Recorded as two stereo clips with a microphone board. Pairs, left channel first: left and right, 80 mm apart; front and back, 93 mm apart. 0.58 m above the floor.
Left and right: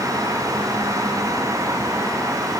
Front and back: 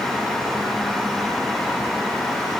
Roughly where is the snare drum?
No snare drum in this recording.